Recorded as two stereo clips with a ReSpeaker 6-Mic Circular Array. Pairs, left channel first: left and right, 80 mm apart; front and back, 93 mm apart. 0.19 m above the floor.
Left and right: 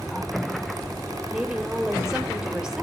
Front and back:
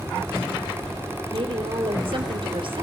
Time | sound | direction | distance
1.3 | a woman speaking | 170° right | 3.5 m